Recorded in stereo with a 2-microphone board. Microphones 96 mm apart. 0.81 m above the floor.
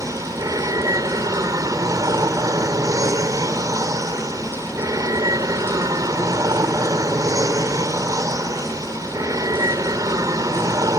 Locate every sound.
0.0 s an aircraft: 35° right (ahead or behind)